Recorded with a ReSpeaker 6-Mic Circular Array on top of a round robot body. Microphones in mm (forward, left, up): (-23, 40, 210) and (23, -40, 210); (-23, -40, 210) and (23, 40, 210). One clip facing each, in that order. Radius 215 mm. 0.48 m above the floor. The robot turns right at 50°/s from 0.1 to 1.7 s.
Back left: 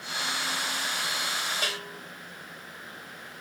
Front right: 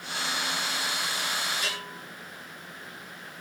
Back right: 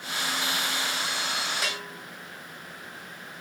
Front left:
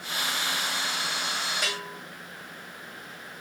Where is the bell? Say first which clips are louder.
Back left 1 dB, even; 155° left, 2.5 m.